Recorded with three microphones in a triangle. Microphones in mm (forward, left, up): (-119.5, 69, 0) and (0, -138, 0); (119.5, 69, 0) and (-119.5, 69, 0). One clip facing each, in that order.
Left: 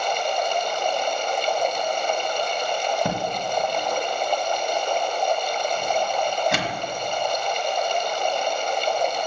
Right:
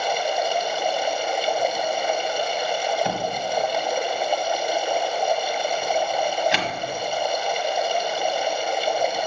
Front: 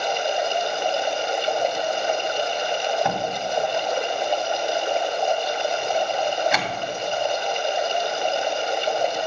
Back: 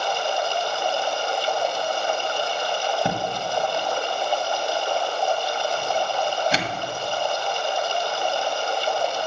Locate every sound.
0.0 s running water: 5° left, 0.8 m
3.0 s a door slam: 130° left, 1.5 m